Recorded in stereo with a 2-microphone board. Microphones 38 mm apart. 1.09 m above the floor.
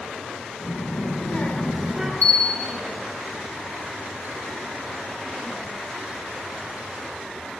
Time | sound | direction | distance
0.6 | a child speaking | 80° left | 1.2 m
2.2 | a bell | 60° left (ahead or behind) | 1.7 m